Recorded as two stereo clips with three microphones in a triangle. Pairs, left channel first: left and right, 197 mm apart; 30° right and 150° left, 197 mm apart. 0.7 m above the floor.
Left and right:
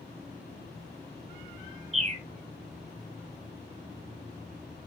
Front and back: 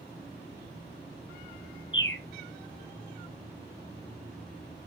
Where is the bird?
35° right, 2 m.